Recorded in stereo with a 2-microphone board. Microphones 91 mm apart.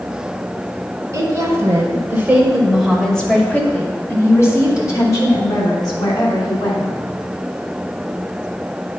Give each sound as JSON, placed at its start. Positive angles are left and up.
{"t": 1.1, "sound": "a woman speaking", "side_deg": -35, "distance_m": 1.8}